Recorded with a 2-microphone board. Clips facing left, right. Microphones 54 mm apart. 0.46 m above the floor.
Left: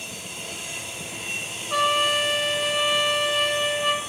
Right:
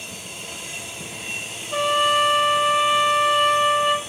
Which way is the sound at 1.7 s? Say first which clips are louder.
Right 2 dB; 75° left (ahead or behind).